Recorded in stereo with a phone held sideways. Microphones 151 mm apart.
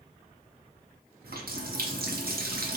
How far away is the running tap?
About 0.6 m.